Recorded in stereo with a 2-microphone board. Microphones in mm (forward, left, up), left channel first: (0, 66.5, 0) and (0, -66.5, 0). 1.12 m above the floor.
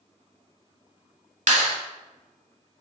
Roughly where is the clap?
Right.